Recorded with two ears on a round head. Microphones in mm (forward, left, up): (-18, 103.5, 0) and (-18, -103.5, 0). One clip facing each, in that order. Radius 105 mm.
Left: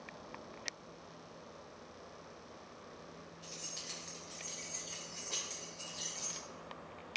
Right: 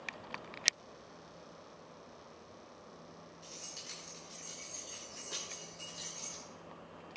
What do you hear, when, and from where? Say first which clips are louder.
3.4 s keys jangling: left 1 dB; 5° right (ahead or behind), 3.5 m; by 6.4 s centre (ahead or behind), 5.5 m